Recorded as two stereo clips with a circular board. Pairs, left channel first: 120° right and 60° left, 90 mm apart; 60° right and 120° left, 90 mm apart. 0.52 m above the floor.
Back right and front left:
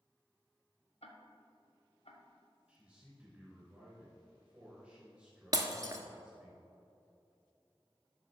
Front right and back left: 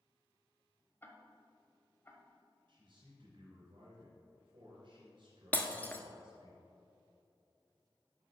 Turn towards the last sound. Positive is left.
turn(degrees=10)